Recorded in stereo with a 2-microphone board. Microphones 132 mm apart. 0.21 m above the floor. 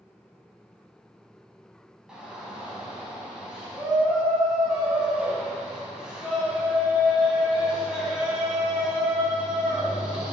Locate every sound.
2.1 s a shout: 5° right (ahead or behind), 1.2 m